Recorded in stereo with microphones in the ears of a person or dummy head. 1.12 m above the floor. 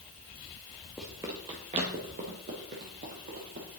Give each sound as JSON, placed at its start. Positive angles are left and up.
{"t": 1.0, "sound": "running footsteps", "side_deg": 0, "distance_m": 1.2}